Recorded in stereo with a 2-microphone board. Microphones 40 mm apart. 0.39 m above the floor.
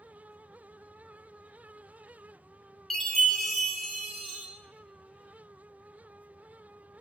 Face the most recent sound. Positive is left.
turn(degrees=5)  # may be behind; listen again after turning